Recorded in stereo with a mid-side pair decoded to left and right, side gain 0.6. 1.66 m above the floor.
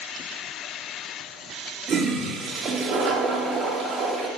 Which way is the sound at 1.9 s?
35° right.